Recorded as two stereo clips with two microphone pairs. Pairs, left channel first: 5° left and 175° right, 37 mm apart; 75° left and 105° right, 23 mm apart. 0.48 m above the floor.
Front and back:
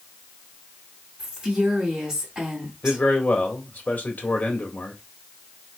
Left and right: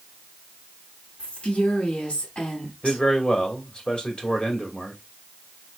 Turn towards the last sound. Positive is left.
turn(degrees=30)